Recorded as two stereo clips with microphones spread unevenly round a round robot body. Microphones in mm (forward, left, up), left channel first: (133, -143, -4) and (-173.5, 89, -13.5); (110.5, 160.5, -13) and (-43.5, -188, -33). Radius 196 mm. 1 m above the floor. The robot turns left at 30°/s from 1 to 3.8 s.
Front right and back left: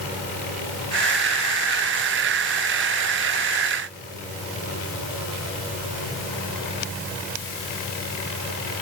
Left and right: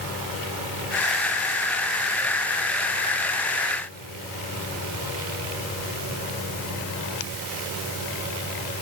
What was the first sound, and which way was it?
Only background noise.